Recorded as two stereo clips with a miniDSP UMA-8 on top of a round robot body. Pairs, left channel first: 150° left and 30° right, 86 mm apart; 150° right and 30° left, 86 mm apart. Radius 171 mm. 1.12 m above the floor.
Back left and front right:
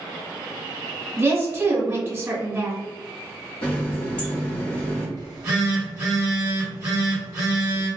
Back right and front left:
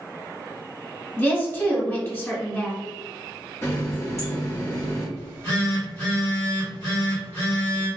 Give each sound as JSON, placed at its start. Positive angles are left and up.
{"t": 1.2, "sound": "a woman speaking", "azimuth_deg": -90, "distance_m": 1.8}
{"t": 3.6, "sound": "a running tap", "azimuth_deg": 150, "distance_m": 1.0}
{"t": 5.2, "sound": "a phone buzzing", "azimuth_deg": -85, "distance_m": 1.1}